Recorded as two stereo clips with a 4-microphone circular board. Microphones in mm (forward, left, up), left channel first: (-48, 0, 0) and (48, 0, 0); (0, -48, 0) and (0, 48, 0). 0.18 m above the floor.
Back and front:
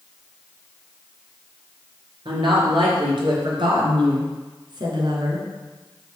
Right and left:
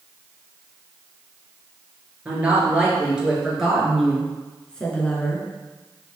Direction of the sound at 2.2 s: 15° left.